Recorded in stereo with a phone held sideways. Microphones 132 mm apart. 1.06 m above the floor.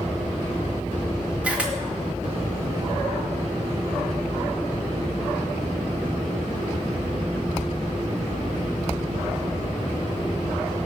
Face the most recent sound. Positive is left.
turn(degrees=-10)  # may be behind; listen again after turning